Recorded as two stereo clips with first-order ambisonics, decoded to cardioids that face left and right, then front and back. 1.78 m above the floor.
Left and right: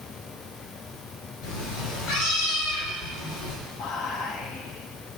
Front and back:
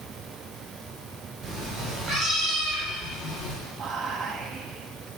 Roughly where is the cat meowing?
Left.